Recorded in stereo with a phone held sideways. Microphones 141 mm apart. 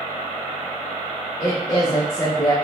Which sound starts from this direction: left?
A woman speaking, at 1.4 s.